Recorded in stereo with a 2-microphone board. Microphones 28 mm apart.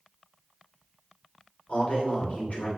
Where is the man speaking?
50° left (ahead or behind), 2.5 m.